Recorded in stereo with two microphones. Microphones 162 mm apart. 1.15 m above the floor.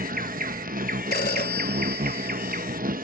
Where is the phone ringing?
70° left (ahead or behind).